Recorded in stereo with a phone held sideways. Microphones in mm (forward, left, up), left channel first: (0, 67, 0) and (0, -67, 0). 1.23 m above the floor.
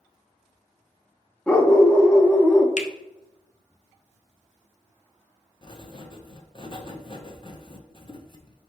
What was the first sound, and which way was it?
A dog barking, 10° left (ahead or behind).